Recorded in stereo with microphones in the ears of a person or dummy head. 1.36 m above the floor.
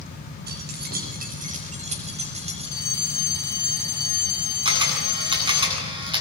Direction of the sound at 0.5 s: 55° right (ahead or behind).